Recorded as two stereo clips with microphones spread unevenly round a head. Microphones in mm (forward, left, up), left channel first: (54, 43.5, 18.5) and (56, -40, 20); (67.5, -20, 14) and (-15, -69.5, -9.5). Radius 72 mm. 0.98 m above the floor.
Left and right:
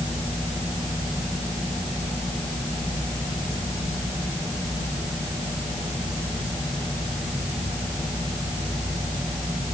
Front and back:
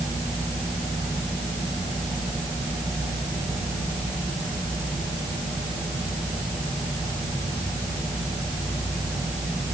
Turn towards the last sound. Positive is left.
No sound to turn to.